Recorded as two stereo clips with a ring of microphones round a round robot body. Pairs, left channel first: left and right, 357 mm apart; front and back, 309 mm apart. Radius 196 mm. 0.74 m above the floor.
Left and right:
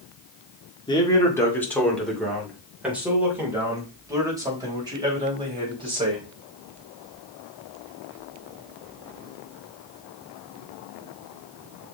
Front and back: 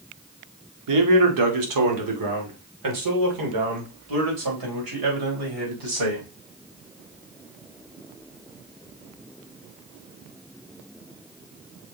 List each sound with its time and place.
0.9 s a man speaking: 170° left, 1.9 m; by 6.3 s 165° right, 4.5 m